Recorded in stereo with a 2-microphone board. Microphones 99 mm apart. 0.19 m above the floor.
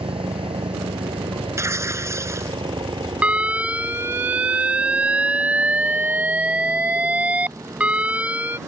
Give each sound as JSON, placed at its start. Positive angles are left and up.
{"t": 0.0, "sound": "a helicopter", "side_deg": -65}
{"t": 1.6, "sound": "tearing paper", "side_deg": -30}
{"t": 3.2, "sound": "an alarm", "side_deg": -15}